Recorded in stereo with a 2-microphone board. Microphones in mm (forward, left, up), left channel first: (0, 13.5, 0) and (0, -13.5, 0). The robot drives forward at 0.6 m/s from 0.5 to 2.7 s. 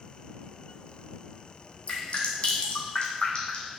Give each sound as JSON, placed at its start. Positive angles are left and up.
{"t": 1.9, "sound": "dripping", "side_deg": 50, "distance_m": 1.5}